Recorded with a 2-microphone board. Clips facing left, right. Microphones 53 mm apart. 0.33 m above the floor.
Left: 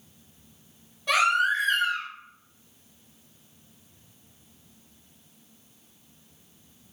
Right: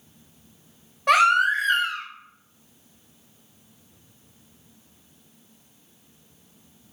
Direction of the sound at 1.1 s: 55° right (ahead or behind).